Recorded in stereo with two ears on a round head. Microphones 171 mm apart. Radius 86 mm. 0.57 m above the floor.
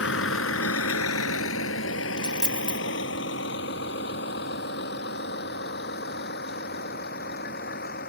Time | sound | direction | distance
0.0 | a vehicle | 70° left (ahead or behind) | ?
2.2 | a dropped coin | 5° left (ahead or behind) | ?